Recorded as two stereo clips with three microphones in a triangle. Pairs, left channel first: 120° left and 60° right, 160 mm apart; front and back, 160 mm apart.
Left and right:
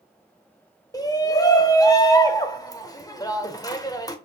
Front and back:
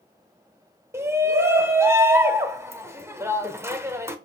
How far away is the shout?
About 0.8 m.